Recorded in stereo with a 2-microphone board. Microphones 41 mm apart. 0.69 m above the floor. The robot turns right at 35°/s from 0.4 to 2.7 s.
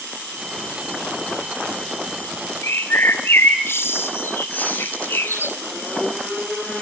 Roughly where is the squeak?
Left.